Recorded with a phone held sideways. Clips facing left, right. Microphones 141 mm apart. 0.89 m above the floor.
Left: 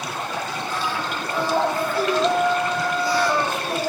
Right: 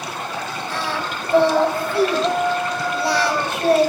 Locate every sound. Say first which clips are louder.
0.7 s singing: right 2 dB; 70° right (ahead or behind), 5 m